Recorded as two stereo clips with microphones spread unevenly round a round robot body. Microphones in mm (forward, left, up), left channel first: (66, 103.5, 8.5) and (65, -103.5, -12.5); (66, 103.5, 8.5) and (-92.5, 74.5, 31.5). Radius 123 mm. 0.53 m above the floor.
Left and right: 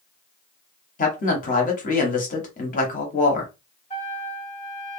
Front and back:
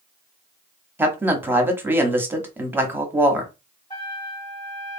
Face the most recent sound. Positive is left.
turn(degrees=45)